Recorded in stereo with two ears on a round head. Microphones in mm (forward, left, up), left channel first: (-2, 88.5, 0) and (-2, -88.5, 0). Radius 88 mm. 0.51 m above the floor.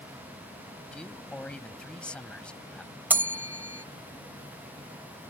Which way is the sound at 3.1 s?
10° right (ahead or behind).